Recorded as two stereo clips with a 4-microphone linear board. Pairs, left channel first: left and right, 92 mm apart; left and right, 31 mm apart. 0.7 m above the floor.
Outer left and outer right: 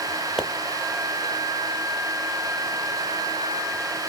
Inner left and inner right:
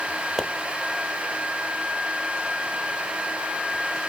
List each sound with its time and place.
0.4 s a pop: 5° right (ahead or behind), 0.8 m